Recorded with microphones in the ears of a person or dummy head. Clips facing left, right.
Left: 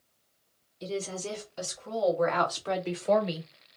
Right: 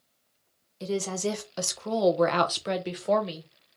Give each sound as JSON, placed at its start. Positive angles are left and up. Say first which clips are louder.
{"t": 0.8, "sound": "a woman speaking", "louder": "right 5 dB", "side_deg": -75, "distance_m": 1.2}